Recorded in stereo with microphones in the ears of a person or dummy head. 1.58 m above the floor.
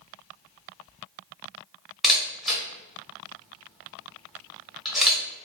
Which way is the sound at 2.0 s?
Centre (ahead or behind).